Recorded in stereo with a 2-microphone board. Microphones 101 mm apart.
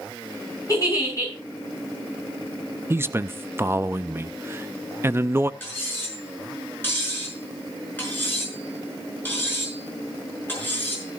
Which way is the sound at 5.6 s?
20° left (ahead or behind).